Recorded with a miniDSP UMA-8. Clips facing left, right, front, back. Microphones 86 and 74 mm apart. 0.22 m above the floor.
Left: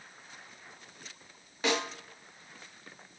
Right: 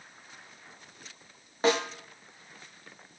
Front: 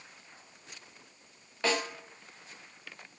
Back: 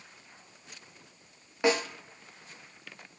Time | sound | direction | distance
1.6 | a snare drum | 115° right | 0.5 m